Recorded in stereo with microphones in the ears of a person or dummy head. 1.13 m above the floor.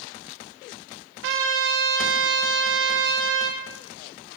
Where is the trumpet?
60° right (ahead or behind), 0.8 m.